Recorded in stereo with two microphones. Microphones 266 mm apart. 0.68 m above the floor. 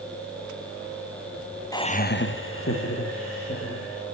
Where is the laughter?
15° left (ahead or behind), 0.7 m; by 4.0 s 50° left (ahead or behind), 2.5 m.